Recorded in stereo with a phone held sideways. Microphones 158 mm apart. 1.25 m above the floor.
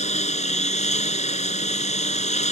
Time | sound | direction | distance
0.0 | a lawn mower | 50° left (ahead or behind) | ?